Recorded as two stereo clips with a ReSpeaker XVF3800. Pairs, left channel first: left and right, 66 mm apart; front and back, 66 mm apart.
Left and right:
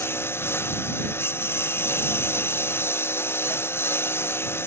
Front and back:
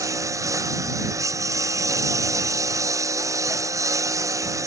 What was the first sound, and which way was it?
A lawn mower, 145° left.